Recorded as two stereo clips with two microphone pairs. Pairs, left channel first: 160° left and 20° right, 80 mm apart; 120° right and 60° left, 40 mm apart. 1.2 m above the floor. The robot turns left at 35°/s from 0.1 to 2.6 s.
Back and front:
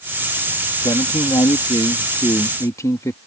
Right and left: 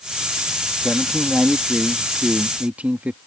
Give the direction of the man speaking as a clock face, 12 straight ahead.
6 o'clock.